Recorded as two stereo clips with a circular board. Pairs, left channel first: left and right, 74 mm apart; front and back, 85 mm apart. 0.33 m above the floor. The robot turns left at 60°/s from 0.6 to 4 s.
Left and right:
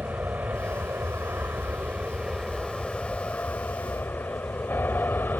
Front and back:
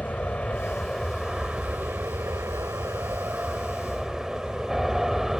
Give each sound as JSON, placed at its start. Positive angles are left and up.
{"t": 0.0, "sound": "an aircraft", "azimuth_deg": -60}